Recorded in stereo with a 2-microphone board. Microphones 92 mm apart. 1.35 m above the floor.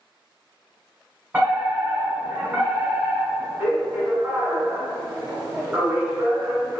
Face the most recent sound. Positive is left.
turn(degrees=-20)  # may be behind; listen again after turning